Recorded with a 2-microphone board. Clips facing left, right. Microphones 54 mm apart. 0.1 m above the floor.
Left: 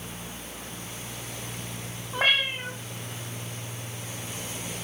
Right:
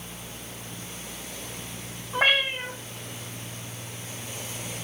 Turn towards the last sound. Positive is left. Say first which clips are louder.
# right 2 dB
turn(degrees=0)  # may be behind; listen again after turning